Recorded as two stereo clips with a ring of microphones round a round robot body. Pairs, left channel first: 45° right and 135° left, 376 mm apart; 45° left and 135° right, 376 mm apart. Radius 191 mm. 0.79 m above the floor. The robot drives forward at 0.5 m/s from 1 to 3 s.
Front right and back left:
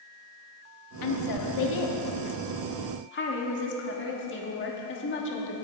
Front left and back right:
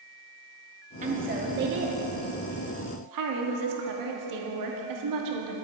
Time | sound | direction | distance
1.0 | a woman speaking | 65° right | 1.7 m